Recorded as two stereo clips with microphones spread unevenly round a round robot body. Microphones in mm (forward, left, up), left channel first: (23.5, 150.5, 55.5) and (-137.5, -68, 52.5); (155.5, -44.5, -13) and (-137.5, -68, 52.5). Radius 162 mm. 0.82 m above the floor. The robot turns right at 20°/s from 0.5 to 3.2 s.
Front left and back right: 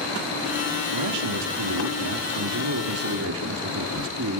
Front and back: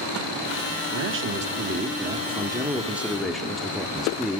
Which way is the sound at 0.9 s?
130° right.